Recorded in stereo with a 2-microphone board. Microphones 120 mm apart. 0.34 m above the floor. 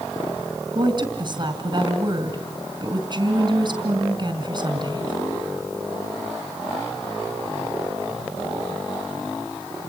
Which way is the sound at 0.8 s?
40° right (ahead or behind).